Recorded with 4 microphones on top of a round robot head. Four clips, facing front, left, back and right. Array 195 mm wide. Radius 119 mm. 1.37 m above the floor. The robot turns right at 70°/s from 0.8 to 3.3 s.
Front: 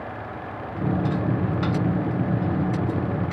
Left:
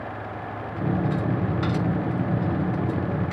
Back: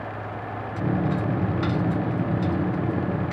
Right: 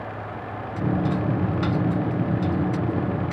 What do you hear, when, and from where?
Only background noise.